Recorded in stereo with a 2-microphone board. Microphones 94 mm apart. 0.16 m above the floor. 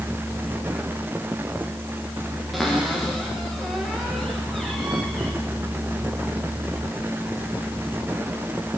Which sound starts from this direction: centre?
A cupboard door, at 2.5 s.